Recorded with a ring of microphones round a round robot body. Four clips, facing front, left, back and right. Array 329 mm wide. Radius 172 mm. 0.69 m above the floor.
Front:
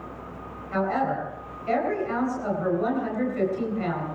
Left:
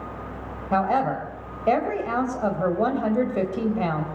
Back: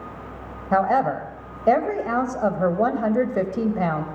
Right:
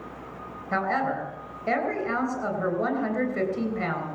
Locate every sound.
0.7 s a woman speaking: 160° left, 3.5 m